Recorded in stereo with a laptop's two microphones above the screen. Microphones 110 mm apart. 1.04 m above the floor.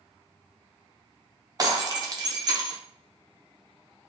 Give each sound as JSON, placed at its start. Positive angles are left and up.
{"t": 1.6, "sound": "breaking glass", "side_deg": -35, "distance_m": 0.7}